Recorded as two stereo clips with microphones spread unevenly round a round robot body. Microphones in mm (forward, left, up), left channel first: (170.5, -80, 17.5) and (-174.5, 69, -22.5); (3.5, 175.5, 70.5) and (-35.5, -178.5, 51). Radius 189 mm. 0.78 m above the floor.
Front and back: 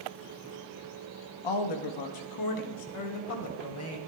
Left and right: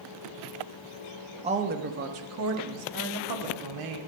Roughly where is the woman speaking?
Ahead right.